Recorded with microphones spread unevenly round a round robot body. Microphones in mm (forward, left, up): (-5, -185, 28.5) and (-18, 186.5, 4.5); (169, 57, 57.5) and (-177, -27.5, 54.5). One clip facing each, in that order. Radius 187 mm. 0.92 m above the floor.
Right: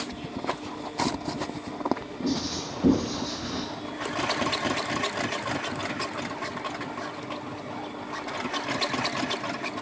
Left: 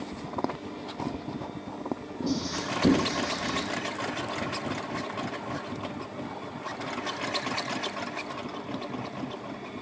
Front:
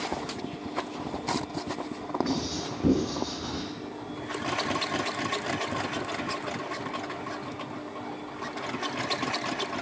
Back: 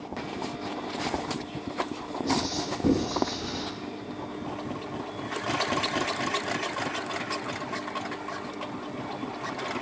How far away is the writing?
About 1.4 m.